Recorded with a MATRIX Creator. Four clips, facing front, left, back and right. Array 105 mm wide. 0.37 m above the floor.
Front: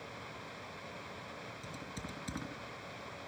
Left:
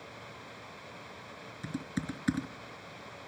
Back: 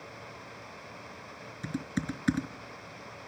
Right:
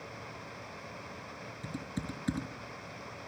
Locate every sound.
1.6 s typing on a keyboard: 155° left, 4.5 m